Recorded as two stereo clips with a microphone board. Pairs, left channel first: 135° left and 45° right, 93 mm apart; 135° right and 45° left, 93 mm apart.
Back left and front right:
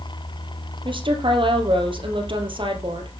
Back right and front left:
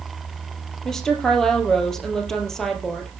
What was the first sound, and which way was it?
A woman speaking, 50° right.